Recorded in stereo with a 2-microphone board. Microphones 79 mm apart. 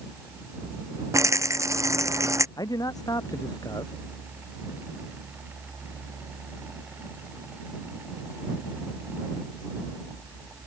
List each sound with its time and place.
1.1 s a rattle: 40° right (ahead or behind)
2.6 s a man speaking: 55° left (ahead or behind)